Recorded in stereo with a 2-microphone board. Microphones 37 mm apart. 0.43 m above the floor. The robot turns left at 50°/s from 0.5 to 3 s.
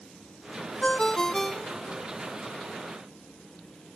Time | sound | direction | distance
0.8 | a ringtone | 45° left | ?